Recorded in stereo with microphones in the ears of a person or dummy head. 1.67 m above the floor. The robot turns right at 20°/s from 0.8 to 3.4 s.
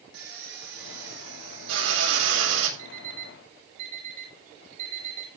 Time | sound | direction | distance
0.1 | a drill | 115° right | 7 m
2.8 | an alarm clock | 55° right (ahead or behind) | 6 m